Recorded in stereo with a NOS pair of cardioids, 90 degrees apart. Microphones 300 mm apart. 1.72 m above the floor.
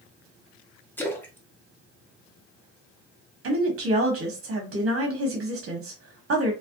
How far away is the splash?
About 0.8 m.